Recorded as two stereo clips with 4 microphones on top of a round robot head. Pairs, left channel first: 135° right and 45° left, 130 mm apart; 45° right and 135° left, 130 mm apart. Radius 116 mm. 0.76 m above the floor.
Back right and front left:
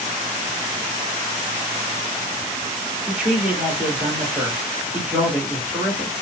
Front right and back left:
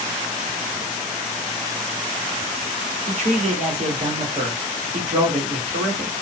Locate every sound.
3.1 s a man speaking: 120° left, 2 m